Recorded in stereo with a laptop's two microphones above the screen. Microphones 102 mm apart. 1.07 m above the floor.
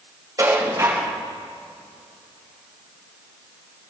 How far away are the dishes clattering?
About 4 m.